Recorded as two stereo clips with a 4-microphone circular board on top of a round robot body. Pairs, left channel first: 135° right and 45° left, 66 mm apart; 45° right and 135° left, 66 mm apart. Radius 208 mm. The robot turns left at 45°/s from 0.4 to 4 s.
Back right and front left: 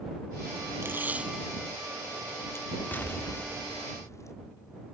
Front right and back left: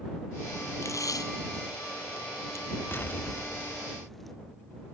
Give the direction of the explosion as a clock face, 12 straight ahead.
3 o'clock.